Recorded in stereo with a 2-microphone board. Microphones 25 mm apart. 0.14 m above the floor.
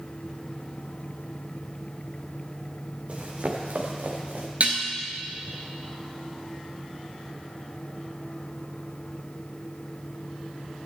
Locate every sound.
3.1 s running footsteps: 50° right (ahead or behind), 2.5 m; by 4.5 s 85° right, 3 m
4.6 s dishes clattering: 55° right (ahead or behind), 1.6 m